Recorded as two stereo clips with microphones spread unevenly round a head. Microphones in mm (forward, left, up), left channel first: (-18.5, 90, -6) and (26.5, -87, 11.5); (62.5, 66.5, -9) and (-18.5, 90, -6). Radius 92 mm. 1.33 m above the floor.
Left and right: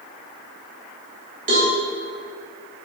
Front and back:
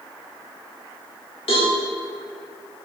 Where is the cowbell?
25° right, 3.5 m.